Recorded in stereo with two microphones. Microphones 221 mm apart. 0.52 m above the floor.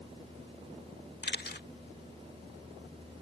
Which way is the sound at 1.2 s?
50° left (ahead or behind).